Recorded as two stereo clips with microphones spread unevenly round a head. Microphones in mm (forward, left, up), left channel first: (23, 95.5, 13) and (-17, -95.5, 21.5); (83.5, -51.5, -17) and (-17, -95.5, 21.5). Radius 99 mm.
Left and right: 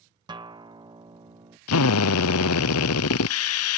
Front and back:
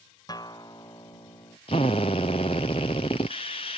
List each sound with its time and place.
0.3 s a guitar: 30° right
1.7 s a drill: 95° left